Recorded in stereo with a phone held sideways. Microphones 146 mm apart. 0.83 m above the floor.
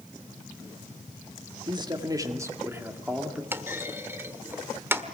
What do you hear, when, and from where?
1.7 s a man speaking: 30° right (ahead or behind), 1.8 m; by 3.4 s 5° right (ahead or behind), 2 m
3.5 s a clunk: 15° right (ahead or behind), 1.3 m